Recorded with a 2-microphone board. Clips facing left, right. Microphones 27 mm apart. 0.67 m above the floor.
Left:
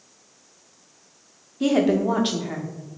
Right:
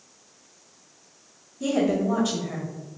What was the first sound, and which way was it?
A woman speaking, 55° left (ahead or behind).